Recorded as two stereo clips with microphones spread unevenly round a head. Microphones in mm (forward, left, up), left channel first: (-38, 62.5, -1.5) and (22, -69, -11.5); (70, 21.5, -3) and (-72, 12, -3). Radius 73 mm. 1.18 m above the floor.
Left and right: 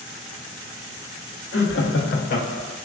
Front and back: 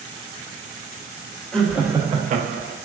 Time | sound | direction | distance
1.5 | laughter | 90° left | 0.8 m